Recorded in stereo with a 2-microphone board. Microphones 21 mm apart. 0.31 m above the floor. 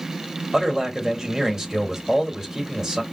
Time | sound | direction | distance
0.5 | a man speaking | 30° right (ahead or behind) | 1.6 m